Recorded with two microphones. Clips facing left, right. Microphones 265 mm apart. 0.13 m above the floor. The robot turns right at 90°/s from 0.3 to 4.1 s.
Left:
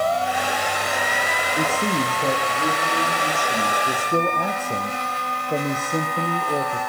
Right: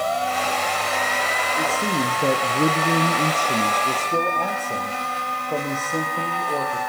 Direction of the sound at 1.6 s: 145° left.